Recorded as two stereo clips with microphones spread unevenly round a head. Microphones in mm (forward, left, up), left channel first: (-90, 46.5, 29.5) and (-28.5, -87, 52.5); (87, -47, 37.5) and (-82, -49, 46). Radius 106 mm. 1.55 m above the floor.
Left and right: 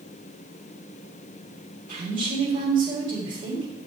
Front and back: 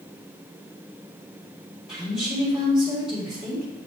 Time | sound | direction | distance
1.9 | a woman speaking | 95° right | 2.5 m